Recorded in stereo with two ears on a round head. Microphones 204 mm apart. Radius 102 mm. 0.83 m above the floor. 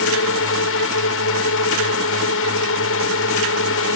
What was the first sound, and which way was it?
A drone, 65° left (ahead or behind).